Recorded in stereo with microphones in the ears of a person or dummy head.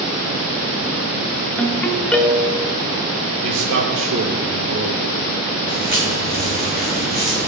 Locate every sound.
1.6 s a ringtone: 5° left (ahead or behind), 1.1 m
3.4 s a man speaking: 70° right (ahead or behind), 3.5 m
5.7 s footsteps: 10° right (ahead or behind), 5 m; by 7.5 s 15° right (ahead or behind), 7.5 m